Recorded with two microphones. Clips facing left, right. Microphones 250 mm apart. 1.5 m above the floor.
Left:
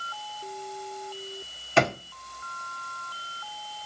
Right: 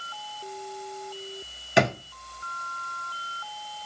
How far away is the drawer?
About 0.8 m.